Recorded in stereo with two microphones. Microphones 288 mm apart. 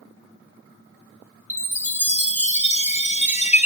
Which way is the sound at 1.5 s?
25° left (ahead or behind).